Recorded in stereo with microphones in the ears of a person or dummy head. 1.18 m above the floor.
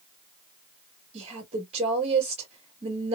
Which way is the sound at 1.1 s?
40° right (ahead or behind).